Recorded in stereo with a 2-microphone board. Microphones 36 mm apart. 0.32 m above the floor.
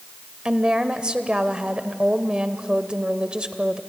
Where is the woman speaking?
25° right (ahead or behind), 0.9 m.